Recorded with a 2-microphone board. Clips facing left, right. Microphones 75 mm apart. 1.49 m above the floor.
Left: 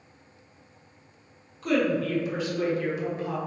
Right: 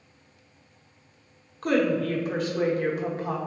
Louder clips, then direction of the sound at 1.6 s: Right 1 dB; 50° right (ahead or behind).